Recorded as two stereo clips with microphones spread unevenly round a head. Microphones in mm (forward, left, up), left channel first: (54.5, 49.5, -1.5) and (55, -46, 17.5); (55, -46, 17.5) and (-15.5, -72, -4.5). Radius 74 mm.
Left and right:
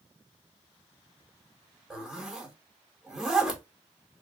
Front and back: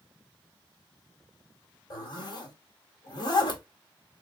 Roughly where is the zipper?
Ahead.